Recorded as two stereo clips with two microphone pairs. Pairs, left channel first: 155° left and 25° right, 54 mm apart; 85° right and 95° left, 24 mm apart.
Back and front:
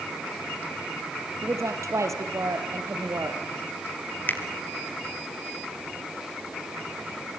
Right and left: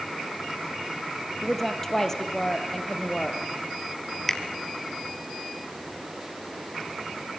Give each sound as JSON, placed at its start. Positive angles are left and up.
{"t": 1.4, "sound": "a woman speaking", "azimuth_deg": -5, "distance_m": 3.0}
{"t": 4.3, "sound": "a finger snap", "azimuth_deg": -160, "distance_m": 2.5}